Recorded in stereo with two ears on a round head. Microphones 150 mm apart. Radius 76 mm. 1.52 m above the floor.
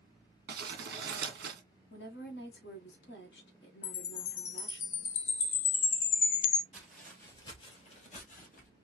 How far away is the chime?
About 1.1 m.